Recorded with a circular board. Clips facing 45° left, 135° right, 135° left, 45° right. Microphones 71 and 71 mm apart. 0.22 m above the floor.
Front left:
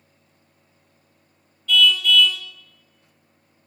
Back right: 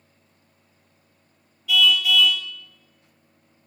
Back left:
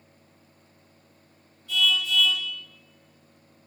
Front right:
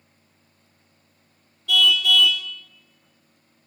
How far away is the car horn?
About 2 m.